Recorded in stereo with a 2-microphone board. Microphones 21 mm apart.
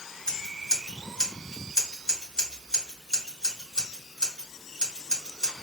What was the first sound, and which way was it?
Scissors, 40° left (ahead or behind).